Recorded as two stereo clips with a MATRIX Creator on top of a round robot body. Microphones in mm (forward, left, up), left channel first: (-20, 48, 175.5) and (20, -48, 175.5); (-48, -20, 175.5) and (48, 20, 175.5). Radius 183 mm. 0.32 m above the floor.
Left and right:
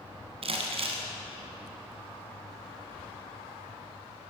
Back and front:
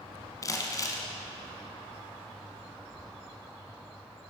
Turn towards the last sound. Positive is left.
turn(degrees=-100)